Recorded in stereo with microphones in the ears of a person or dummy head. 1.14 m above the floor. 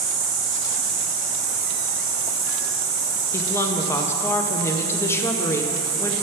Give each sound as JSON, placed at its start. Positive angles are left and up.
{"t": 0.0, "sound": "an insect", "side_deg": 20, "distance_m": 1.9}
{"t": 3.3, "sound": "a woman speaking", "side_deg": 15, "distance_m": 0.6}